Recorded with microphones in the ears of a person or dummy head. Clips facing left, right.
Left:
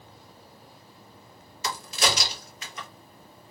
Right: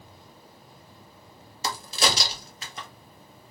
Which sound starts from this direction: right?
A crack, at 1.6 s.